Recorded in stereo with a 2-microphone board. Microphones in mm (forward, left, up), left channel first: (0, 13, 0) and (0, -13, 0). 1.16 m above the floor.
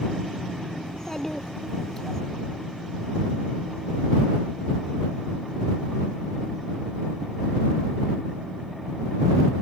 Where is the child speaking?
20° left (ahead or behind).